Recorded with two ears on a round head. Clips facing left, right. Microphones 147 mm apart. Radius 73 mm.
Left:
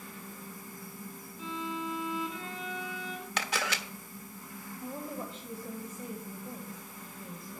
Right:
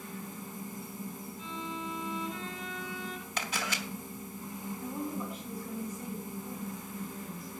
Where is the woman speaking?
25° left (ahead or behind), 2.5 m.